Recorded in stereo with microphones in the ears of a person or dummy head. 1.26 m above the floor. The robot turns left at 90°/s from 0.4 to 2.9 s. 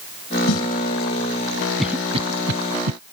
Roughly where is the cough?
Centre.